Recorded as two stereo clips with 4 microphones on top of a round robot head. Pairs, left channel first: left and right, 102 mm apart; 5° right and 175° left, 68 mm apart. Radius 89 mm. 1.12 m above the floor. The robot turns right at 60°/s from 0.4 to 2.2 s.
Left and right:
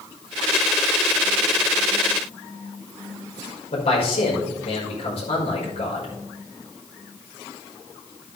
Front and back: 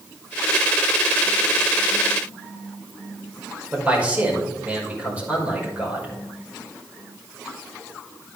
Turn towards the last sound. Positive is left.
turn(degrees=110)